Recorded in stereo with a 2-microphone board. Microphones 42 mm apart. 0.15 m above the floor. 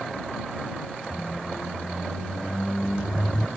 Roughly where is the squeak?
Centre.